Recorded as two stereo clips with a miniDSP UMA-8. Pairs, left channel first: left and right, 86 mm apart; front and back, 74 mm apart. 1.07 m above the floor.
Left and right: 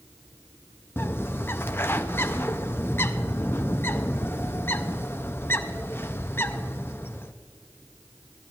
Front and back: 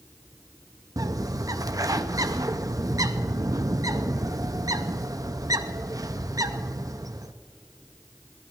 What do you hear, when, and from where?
1.0 s a bird: 155° left, 0.5 m